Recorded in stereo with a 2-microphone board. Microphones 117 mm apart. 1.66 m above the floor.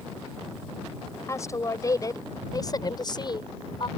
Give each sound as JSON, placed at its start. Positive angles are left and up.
{"t": 1.3, "sound": "a woman speaking", "side_deg": 25}